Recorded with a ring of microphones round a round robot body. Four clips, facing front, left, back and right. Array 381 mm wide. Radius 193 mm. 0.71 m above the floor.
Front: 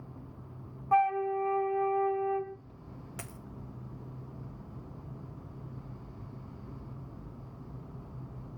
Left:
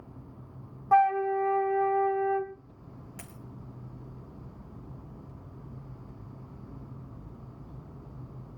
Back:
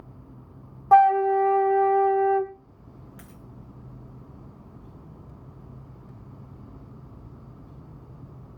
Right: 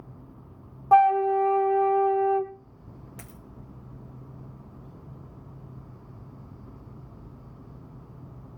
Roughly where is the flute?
Behind right.